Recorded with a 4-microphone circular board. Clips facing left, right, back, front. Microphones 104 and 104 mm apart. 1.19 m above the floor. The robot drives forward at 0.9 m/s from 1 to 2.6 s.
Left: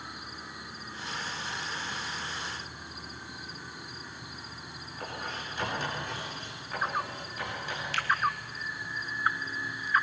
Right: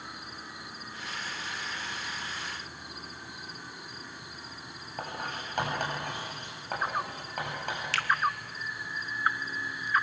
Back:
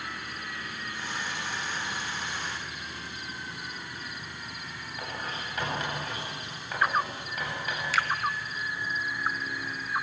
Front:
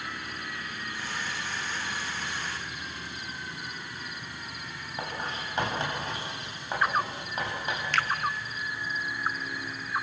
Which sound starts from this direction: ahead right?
Writing, at 5.0 s.